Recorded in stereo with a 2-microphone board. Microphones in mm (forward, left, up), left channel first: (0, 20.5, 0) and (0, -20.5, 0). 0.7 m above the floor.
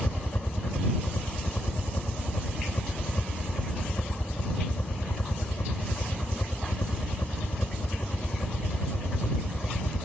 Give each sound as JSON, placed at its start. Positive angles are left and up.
{"t": 0.0, "sound": "a helicopter", "side_deg": 55}